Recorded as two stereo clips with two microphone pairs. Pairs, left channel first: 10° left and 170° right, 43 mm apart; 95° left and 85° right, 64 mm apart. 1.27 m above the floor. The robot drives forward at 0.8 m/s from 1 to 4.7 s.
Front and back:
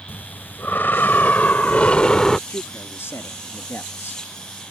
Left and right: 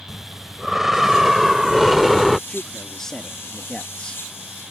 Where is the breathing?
Straight ahead; by 2.4 s 25° left.